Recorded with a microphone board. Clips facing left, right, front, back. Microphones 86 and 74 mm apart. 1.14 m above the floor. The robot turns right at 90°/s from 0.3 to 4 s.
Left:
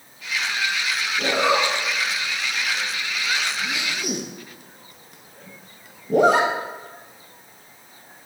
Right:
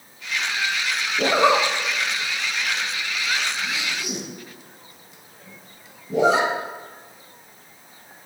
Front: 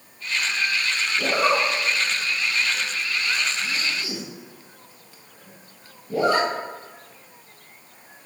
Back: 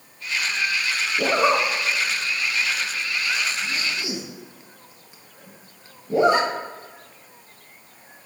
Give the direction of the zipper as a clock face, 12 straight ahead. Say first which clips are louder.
Right 3 dB, back 2 dB; 5 o'clock.